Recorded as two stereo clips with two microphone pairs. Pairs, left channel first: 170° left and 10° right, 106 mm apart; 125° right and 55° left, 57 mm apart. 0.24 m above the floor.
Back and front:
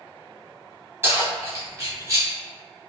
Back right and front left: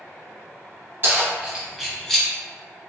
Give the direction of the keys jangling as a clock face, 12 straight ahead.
10 o'clock.